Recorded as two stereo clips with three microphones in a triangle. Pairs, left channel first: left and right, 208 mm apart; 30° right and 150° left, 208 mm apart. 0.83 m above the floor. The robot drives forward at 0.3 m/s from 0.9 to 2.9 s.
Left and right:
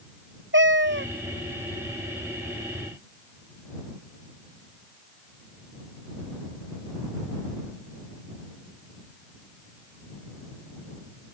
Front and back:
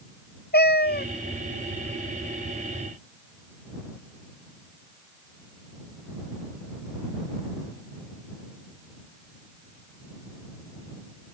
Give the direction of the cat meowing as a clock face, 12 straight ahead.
2 o'clock.